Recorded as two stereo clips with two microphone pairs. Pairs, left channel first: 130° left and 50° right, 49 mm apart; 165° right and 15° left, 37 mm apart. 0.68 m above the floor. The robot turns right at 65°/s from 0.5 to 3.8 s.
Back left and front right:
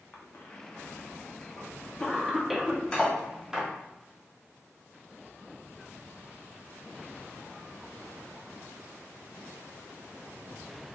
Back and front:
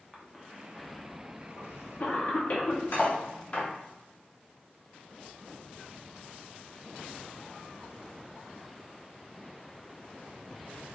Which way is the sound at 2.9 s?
160° right.